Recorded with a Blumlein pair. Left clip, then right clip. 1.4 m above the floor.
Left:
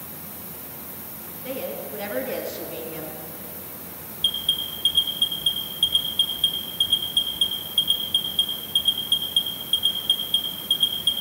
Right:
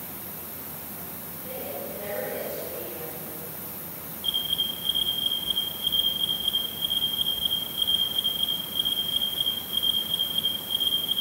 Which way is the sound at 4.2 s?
60° left.